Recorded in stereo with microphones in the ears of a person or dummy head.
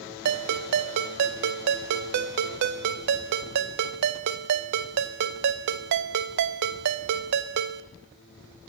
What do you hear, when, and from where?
0.2 s a ringtone: 60° right (ahead or behind), 0.6 m